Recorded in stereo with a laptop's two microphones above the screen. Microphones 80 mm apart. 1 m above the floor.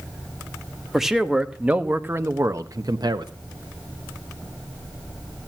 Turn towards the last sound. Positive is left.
turn(degrees=-60)  # may be behind; listen again after turning